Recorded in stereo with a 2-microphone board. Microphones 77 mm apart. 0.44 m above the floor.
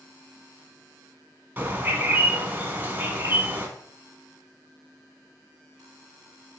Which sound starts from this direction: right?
A bird, at 1.6 s.